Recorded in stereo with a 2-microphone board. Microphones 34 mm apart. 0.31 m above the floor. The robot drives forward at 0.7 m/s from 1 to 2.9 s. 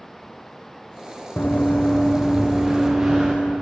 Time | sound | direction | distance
1.4 | running footsteps | 60° left (ahead or behind) | 0.8 m